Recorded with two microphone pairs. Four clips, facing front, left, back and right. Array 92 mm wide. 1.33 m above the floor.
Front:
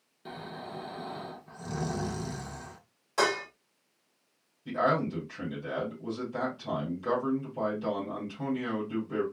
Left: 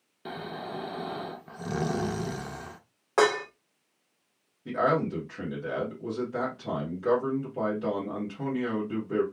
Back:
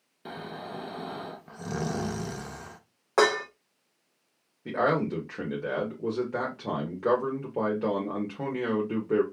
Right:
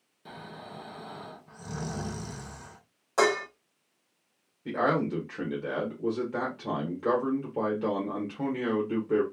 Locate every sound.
0.2 s snoring: 120° left, 0.7 m
3.2 s dishes clattering: 155° left, 1.2 m
4.7 s a man speaking: 160° right, 1.4 m